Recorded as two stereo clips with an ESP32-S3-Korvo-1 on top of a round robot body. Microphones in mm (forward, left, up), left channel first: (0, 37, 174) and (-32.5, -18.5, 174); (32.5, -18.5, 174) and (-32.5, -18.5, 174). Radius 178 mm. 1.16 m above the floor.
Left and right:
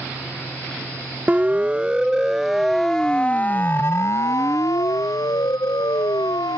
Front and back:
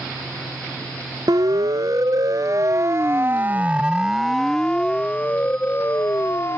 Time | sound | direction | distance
1.3 | a siren | 175° left | ?